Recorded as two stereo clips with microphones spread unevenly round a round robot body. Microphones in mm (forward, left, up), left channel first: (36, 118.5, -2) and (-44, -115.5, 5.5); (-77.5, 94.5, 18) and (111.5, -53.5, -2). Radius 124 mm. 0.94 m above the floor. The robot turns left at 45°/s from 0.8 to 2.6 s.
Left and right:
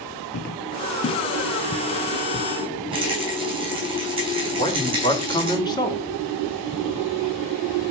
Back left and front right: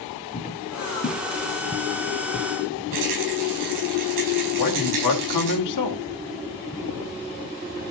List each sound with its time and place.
0.3 s footsteps: 100° left, 1.2 m
2.9 s a rattle: 35° right, 6.5 m
4.6 s a man speaking: 145° left, 2.5 m